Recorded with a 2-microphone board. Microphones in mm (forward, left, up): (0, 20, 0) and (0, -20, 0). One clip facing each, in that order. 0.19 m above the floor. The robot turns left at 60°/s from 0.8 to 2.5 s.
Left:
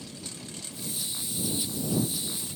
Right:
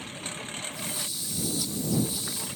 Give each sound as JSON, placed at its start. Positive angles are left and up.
{"t": 0.0, "sound": "a lawn mower", "azimuth_deg": -45}